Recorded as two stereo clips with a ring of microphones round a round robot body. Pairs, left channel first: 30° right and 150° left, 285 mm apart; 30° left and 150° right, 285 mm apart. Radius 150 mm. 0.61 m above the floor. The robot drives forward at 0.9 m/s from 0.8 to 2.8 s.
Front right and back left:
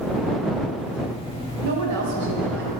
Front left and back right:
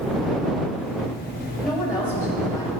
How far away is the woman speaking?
About 3 m.